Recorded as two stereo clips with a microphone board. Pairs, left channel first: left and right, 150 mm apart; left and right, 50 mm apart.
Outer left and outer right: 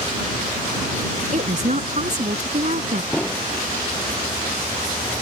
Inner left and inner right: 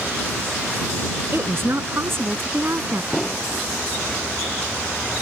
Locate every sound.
1.3 s a woman speaking: 55° right (ahead or behind)
3.1 s an explosion: 10° left (ahead or behind)